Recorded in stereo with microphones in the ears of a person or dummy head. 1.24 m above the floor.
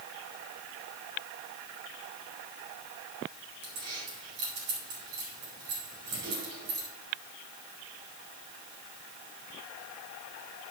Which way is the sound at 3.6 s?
80° right.